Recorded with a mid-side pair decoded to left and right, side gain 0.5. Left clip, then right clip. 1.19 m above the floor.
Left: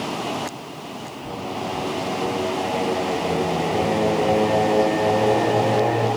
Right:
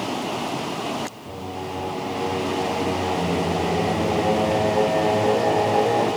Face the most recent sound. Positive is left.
turn(degrees=70)